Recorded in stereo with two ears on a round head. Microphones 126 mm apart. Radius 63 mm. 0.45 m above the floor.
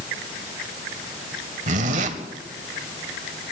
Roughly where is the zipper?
Right.